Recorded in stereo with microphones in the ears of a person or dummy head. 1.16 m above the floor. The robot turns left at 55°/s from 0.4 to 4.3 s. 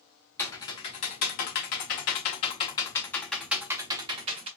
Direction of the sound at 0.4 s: 10° left (ahead or behind).